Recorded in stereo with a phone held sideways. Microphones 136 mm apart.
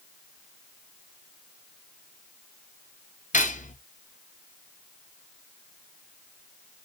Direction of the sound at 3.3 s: 65° left (ahead or behind).